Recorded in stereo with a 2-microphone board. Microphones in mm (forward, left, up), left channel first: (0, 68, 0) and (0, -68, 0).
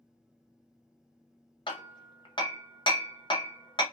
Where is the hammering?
35° left (ahead or behind), 0.7 m.